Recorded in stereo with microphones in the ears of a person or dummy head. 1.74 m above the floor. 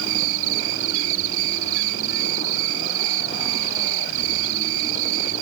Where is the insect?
60° right (ahead or behind).